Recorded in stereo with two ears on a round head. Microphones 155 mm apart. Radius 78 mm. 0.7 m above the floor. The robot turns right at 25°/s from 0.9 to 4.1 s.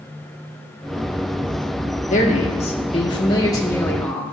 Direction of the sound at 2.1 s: 120° left.